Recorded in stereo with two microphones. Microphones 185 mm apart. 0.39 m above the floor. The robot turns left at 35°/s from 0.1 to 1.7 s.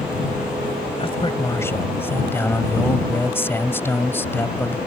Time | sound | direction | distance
1.0 | a man speaking | 30° left (ahead or behind) | ?